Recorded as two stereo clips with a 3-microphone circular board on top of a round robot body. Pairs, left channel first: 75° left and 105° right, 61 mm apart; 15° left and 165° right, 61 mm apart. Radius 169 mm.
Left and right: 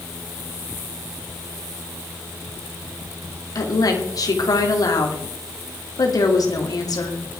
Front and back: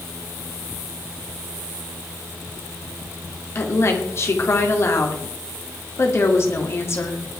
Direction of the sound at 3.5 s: 60° left.